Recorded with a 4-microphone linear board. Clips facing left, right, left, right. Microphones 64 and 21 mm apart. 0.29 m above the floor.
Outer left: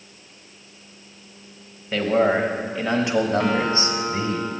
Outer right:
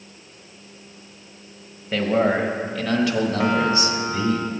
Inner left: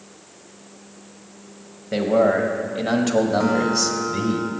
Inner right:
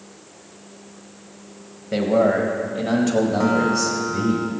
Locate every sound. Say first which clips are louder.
1.9 s a man speaking: outer left 1 dB, even; centre (ahead or behind), 1.3 m; by 4.4 s 45° left (ahead or behind), 1.4 m
3.4 s a guitar: outer right 2 dB, inner right 1 dB; 5° right (ahead or behind), 1.3 m